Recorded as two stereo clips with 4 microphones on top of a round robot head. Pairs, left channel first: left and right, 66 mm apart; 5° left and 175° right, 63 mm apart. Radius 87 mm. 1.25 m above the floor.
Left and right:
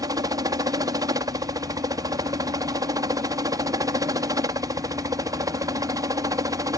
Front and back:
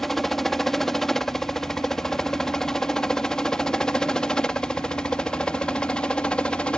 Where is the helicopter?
85° right; by 6.8 s 70° right.